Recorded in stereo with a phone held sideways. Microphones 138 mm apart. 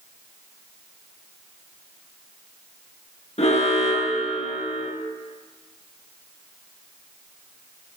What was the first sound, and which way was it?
An alarm, 50° left (ahead or behind).